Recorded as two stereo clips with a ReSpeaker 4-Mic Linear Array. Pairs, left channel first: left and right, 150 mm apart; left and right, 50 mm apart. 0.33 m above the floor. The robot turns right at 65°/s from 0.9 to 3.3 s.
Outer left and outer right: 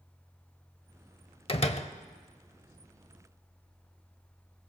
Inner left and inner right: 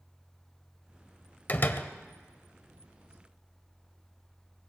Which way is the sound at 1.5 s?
40° left (ahead or behind).